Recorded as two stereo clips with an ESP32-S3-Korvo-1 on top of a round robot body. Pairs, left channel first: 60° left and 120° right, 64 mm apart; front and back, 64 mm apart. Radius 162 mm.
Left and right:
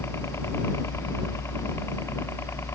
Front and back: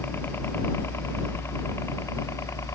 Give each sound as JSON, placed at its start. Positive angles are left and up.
{"t": 0.0, "sound": "a helicopter", "azimuth_deg": 40}